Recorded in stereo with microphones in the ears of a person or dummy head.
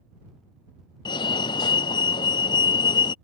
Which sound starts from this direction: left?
A fire alarm, at 1.1 s.